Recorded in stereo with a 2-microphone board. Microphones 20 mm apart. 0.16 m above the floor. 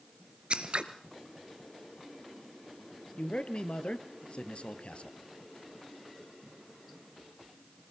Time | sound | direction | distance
0.5 | scissors | 60° right (ahead or behind) | 1.9 m
3.2 | a man speaking | 70° left (ahead or behind) | 3 m